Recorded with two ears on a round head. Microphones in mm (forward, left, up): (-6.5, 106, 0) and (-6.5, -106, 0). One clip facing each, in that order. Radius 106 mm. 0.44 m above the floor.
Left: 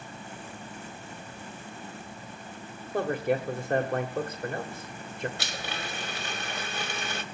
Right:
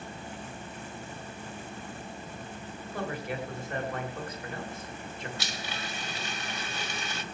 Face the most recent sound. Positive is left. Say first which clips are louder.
# left 2 dB
turn(degrees=45)  # may be behind; listen again after turning